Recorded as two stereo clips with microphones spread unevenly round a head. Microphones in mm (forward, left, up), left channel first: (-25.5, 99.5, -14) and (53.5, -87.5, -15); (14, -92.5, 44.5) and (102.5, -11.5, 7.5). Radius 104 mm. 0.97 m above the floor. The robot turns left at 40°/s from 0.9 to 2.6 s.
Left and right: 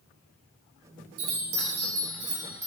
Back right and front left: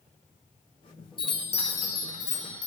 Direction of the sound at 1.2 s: 85° right.